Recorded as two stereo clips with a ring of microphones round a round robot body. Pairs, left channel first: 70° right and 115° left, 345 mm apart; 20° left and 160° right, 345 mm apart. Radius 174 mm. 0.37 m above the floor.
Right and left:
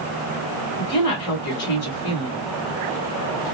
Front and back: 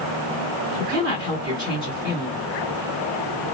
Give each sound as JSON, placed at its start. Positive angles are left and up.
{"t": 0.8, "sound": "a woman speaking", "azimuth_deg": -80, "distance_m": 1.2}